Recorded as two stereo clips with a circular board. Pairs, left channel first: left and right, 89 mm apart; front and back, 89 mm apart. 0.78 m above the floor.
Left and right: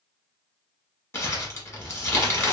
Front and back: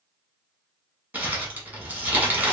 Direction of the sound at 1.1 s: 125° left.